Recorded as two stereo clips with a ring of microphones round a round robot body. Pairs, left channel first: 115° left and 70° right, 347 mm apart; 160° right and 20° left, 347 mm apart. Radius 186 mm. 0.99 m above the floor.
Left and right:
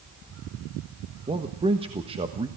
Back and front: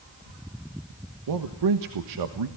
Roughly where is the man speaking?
Ahead.